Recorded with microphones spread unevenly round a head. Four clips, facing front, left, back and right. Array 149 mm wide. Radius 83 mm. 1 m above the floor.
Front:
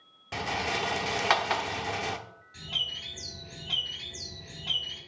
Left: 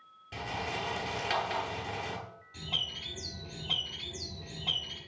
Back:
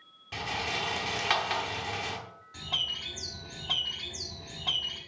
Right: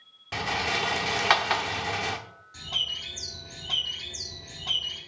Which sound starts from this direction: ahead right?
A rattle, at 0.3 s.